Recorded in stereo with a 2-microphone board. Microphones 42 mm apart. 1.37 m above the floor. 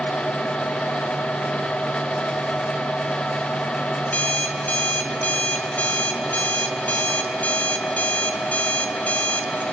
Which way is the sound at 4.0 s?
40° left (ahead or behind).